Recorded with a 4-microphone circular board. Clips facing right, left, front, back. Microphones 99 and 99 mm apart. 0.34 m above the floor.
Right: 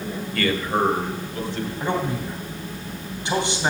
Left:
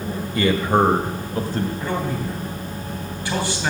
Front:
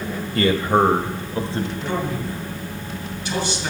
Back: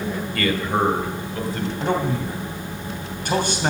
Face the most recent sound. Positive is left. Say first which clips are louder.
# even, back 3 dB
turn(degrees=-155)